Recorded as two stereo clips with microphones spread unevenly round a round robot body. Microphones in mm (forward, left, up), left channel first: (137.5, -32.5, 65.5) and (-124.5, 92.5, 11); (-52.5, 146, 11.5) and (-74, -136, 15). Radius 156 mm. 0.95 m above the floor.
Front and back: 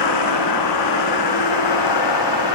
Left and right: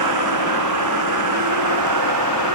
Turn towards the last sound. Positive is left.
turn(degrees=-50)